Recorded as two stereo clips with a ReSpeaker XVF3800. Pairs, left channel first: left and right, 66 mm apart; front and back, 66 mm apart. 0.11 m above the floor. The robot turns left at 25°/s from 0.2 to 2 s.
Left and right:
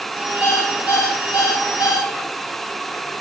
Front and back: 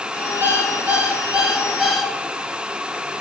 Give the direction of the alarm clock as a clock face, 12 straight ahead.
8 o'clock.